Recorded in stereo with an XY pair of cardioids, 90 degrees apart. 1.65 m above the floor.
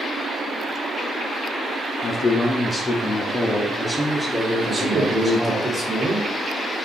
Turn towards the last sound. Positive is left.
turn(degrees=-25)